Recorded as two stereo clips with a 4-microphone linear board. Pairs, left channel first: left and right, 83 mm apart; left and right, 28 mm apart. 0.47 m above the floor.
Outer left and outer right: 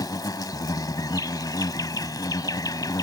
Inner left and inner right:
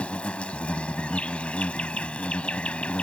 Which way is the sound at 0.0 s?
50° left (ahead or behind).